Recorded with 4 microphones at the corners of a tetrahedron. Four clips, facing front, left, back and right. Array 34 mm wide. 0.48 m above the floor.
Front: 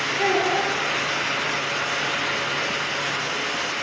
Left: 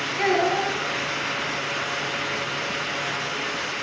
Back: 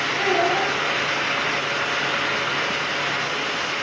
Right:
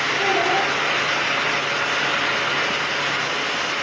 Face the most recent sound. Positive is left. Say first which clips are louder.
# even, back 1 dB
turn(degrees=110)